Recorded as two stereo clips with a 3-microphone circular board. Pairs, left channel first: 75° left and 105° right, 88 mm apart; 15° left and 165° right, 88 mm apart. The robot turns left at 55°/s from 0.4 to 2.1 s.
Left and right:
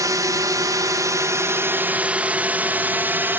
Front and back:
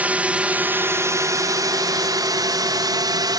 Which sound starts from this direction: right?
A drone, at 0.0 s.